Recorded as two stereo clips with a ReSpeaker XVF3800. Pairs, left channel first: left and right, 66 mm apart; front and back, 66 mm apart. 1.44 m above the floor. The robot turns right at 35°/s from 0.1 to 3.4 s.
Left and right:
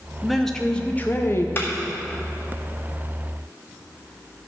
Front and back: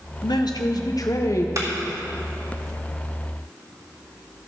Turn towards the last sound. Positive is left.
turn(degrees=-150)